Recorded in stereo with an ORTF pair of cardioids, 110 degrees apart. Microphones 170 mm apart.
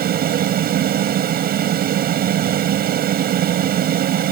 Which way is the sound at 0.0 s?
60° right.